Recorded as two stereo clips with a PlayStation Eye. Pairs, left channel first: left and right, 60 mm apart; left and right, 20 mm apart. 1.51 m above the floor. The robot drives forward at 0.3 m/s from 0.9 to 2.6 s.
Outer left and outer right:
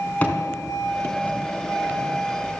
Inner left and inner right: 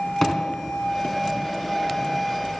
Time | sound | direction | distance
0.2 | a thud | 25° left (ahead or behind) | 3 m